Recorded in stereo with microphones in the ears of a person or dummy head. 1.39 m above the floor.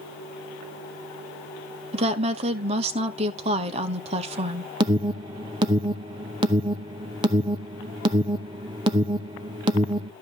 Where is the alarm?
30° right (ahead or behind), 0.8 m.